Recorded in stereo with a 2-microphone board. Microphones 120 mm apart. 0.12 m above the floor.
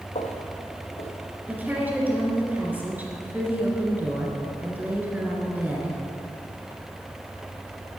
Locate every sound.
0.1 s footsteps: 65° left (ahead or behind), 1.4 m; by 1.9 s 70° left (ahead or behind), 3 m
1.5 s a woman speaking: 15° right (ahead or behind), 2.0 m